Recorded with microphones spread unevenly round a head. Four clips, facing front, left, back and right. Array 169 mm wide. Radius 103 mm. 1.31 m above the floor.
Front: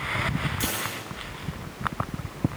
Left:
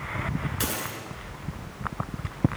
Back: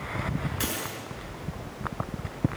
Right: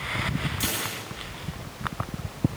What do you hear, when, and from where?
0.6 s a dropped coin: 80° left, 8 m